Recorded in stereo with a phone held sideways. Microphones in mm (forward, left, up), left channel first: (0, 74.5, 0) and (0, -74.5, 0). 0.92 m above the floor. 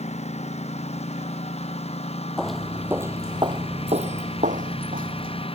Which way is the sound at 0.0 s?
45° left (ahead or behind).